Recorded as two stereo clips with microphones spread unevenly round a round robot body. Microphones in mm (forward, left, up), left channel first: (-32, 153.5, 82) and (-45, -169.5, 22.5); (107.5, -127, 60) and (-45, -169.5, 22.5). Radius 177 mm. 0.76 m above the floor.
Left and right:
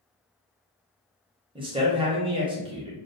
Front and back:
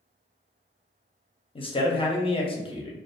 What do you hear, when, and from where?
1.6 s a man speaking: 45° right, 0.8 m